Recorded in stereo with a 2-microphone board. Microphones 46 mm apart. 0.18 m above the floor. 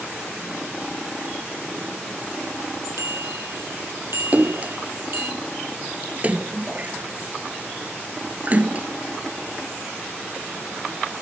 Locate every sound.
3.0 s a bicycle bell: 80° right; by 5.3 s 50° right (ahead or behind)
4.3 s a splash: 35° right (ahead or behind)